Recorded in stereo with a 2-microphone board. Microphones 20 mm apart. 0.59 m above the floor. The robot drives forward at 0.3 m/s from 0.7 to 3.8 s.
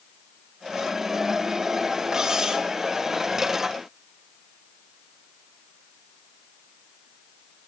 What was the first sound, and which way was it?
Cutlery clinking, 30° right (ahead or behind).